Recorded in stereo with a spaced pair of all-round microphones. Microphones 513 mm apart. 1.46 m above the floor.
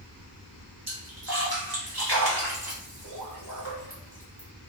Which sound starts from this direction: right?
A splash, at 0.9 s.